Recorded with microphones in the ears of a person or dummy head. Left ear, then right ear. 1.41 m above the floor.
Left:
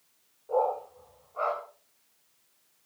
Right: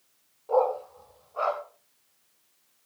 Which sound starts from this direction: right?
A dog barking, at 0.5 s.